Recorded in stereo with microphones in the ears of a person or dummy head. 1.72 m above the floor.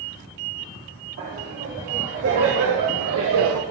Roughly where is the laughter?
Right.